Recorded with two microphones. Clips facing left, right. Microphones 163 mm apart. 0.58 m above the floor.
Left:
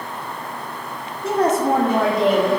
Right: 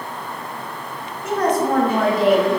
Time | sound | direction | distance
1.2 | a woman speaking | 30° left (ahead or behind) | 1.2 m